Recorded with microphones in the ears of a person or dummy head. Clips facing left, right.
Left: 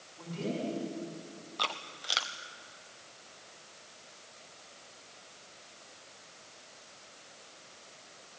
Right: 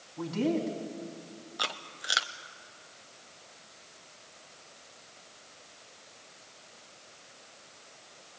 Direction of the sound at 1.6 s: 15° right (ahead or behind).